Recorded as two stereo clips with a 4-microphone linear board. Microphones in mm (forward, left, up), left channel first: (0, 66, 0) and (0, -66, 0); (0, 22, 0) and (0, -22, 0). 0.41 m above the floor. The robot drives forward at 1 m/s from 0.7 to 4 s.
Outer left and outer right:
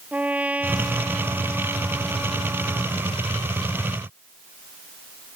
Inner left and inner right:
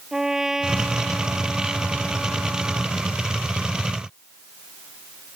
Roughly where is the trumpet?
Centre.